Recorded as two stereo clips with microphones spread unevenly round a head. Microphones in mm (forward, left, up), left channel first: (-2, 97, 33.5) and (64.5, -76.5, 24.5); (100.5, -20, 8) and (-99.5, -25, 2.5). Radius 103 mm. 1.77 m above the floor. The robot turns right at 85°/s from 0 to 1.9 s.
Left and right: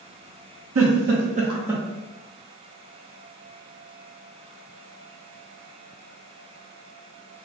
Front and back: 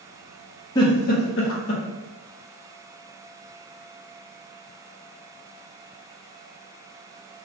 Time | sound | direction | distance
0.8 | a giggle | 70° right | 0.8 m